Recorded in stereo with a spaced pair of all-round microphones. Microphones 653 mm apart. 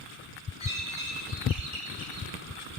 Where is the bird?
65° right (ahead or behind), 4 m.